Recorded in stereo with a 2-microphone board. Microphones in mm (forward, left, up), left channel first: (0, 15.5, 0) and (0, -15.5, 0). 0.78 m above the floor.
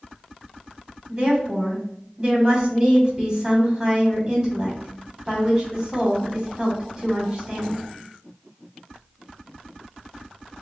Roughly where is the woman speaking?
Centre.